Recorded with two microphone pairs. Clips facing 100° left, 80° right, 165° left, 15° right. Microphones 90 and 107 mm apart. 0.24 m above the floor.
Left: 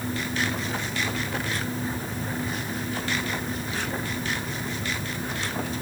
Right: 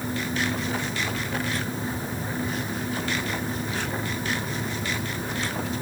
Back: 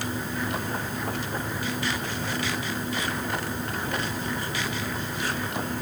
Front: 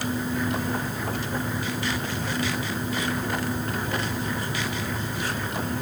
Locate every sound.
Only background noise.